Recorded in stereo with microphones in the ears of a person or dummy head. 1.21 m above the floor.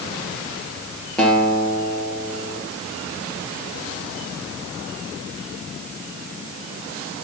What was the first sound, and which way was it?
A guitar, 5° left (ahead or behind).